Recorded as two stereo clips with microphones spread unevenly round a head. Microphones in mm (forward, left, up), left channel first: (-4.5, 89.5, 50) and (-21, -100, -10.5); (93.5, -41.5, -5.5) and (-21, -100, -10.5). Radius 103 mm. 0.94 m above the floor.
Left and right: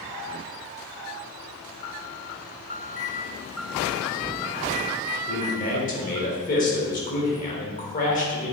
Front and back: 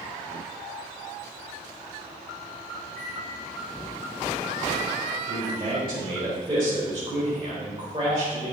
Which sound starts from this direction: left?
A microwave, at 2.9 s.